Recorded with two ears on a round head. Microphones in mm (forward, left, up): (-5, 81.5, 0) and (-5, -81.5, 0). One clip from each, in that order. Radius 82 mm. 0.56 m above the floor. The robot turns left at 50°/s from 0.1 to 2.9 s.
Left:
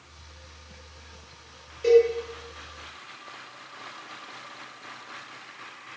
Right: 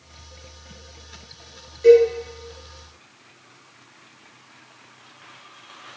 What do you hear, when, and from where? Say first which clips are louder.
1.8 s a cowbell: right 6 dB; 5° right (ahead or behind), 1.6 m; by 2.1 s 5° left (ahead or behind), 1.6 m